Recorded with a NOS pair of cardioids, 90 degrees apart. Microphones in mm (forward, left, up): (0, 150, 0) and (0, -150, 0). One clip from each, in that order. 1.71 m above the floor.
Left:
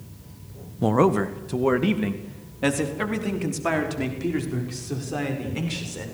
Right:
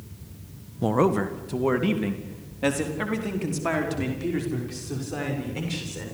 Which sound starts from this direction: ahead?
A man speaking, at 0.8 s.